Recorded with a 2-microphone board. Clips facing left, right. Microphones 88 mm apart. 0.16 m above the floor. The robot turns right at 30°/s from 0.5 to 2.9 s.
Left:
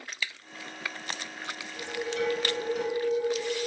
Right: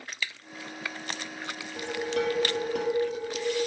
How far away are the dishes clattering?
About 2 m.